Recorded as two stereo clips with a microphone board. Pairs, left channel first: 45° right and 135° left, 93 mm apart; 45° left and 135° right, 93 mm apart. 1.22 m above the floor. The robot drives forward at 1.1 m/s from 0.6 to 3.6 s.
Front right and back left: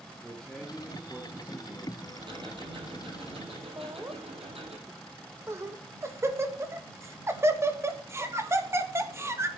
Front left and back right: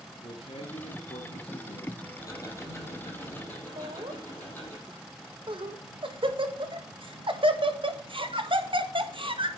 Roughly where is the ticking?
Left.